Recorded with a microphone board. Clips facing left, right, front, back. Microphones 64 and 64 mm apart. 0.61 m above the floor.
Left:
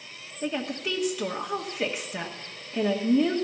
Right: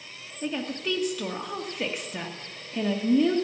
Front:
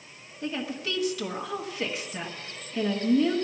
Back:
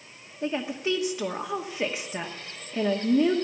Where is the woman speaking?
160° left, 1.2 m.